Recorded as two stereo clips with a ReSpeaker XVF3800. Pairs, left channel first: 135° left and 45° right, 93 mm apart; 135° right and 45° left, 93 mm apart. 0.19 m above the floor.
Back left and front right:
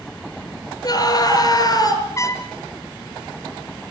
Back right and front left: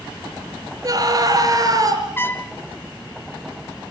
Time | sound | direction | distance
0.8 | a scream | 90° left | 4 m
2.2 | a trumpet | 170° left | 1.2 m